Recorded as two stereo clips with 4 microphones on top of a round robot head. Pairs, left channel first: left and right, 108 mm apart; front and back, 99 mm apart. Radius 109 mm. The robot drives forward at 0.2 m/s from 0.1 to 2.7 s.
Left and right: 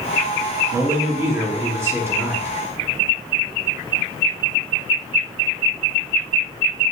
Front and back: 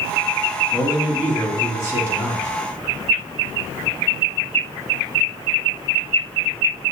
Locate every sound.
0.7 s a man speaking: 130° right, 1.4 m; by 2.6 s 145° right, 1.5 m